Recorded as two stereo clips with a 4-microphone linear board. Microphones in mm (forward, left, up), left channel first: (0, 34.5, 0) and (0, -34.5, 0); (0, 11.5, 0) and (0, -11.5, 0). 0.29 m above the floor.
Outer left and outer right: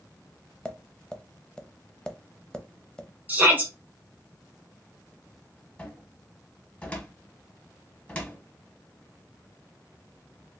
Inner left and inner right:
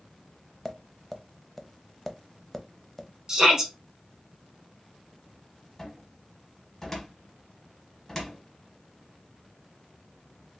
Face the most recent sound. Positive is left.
turn(degrees=15)  # may be behind; listen again after turning